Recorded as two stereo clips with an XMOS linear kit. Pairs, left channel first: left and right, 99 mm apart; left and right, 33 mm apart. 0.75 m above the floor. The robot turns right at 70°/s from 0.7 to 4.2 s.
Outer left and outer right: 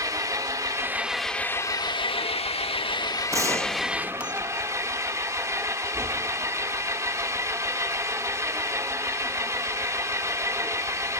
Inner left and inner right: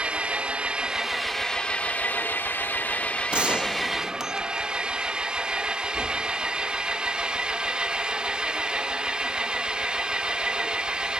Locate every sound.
0.0 s an engine running: 35° right, 1.0 m; by 11.2 s 150° right, 1.0 m
3.3 s a gunshot: 85° right, 0.6 m; by 4.7 s 25° right, 0.6 m